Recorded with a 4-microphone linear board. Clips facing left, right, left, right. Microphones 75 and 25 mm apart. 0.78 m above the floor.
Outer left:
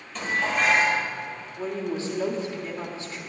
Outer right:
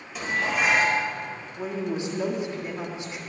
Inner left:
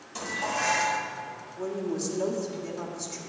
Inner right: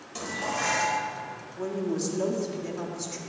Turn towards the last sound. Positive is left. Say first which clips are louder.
# even, inner right 1 dB
turn(degrees=-20)  # may be behind; listen again after turning